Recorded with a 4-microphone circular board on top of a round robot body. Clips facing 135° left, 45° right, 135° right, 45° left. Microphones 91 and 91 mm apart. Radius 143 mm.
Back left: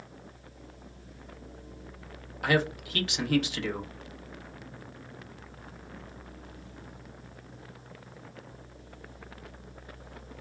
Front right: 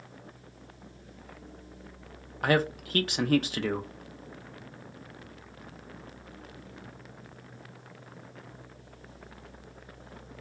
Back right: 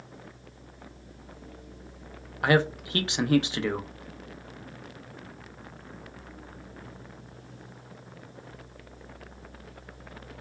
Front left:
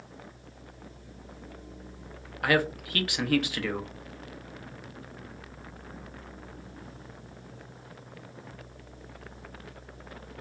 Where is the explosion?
I don't hear an explosion.